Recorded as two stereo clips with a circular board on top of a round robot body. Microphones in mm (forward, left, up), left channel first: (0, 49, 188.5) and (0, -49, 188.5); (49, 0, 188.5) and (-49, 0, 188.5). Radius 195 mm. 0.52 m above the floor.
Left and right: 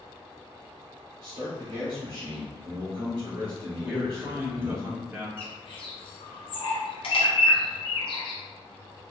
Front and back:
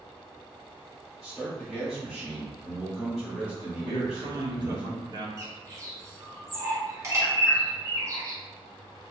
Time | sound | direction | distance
1.2 | a man speaking | 95° right | 1.9 m
3.8 | a man speaking | 155° right | 1.6 m
5.4 | a bird | 120° left | 0.9 m